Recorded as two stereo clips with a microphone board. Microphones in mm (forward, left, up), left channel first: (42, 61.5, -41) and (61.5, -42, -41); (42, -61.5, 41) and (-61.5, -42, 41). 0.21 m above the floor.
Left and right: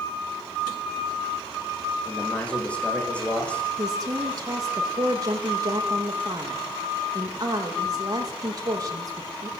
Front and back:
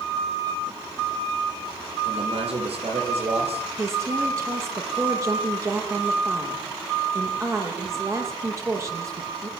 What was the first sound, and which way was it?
A man speaking, straight behind.